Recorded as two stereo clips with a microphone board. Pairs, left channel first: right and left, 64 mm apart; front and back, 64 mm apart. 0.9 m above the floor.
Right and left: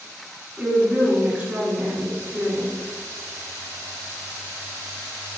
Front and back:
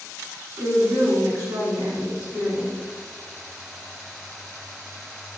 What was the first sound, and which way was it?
A woman speaking, 155° left.